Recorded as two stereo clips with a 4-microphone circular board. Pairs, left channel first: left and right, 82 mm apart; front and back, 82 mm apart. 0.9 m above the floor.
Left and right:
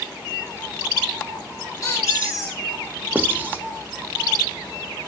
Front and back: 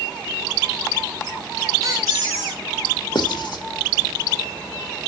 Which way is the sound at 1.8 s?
140° left.